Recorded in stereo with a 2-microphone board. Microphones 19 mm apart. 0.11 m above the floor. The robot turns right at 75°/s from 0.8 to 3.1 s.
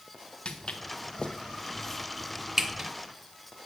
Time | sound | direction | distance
0.5 | footsteps | 60° left (ahead or behind) | 1.6 m